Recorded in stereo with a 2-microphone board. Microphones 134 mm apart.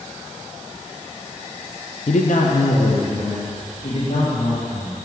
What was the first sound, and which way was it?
A man speaking, 50° left (ahead or behind).